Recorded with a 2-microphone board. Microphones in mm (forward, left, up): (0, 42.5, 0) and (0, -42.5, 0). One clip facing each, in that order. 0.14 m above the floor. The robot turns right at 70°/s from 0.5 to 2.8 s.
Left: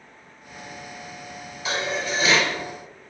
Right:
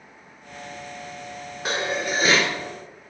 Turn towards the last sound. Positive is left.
turn(degrees=-15)